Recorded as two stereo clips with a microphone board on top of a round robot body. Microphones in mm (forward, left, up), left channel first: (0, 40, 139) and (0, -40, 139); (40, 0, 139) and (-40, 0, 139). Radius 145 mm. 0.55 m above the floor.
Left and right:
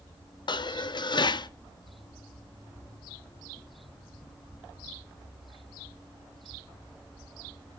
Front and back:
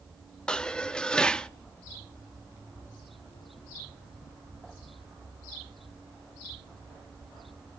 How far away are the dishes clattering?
About 0.7 m.